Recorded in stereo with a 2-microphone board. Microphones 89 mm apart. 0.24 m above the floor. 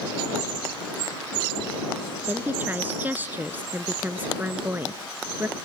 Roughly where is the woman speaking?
Centre.